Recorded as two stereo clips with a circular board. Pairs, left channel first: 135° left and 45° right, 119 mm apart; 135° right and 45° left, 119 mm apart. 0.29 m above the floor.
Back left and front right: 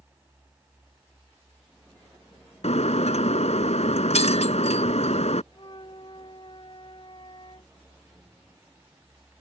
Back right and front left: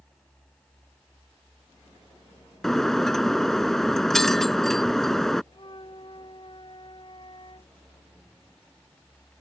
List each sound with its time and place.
2.6 s breaking glass: 140° left
5.5 s a flute: straight behind